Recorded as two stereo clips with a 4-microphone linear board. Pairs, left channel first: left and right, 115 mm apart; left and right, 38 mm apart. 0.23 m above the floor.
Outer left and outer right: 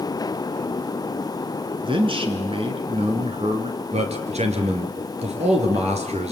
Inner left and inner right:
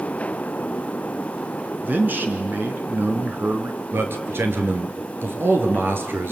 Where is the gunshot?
No gunshot in this recording.